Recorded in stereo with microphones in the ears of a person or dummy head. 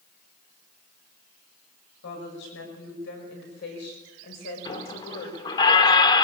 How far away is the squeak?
About 1.5 m.